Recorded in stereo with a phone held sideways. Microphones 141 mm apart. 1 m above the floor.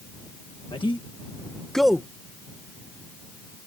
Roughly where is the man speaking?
Left.